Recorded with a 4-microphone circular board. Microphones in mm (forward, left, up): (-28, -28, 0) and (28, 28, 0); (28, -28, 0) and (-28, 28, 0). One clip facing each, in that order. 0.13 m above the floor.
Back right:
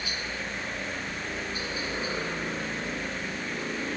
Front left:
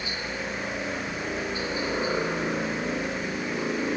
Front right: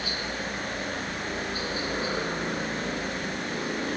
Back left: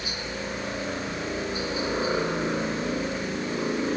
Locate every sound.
0.0 s a helicopter: 85° left